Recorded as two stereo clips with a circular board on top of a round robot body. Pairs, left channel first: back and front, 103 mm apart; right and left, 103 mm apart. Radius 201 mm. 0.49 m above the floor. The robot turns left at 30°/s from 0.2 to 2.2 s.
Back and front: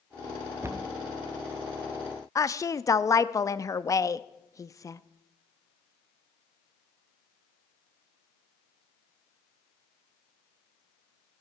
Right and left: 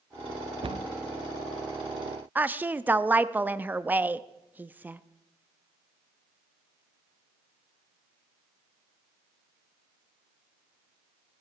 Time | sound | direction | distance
0.6 | a cupboard door | 65° left | 0.6 m
2.4 | a woman speaking | 150° left | 0.8 m